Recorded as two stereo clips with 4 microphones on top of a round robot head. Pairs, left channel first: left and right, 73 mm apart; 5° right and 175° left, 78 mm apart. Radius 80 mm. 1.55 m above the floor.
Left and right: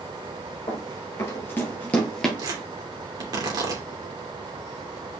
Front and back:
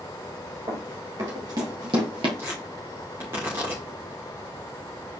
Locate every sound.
0.7 s running footsteps: 130° left, 2.5 m; by 2.3 s 170° left, 2 m
2.4 s tearing paper: 120° right, 3 m